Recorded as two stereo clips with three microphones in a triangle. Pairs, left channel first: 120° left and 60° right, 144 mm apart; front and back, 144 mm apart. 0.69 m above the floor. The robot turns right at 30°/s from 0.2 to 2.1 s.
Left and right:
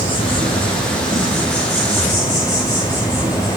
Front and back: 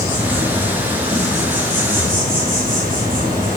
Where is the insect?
120° left, 4.5 m; by 3.6 s straight behind, 4.5 m.